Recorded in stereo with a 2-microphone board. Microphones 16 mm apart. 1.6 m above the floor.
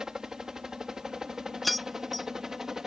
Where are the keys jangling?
Centre (ahead or behind).